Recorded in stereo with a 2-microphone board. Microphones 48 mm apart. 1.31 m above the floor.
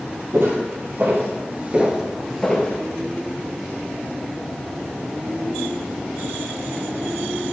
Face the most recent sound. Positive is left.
turn(degrees=15)  # may be behind; listen again after turning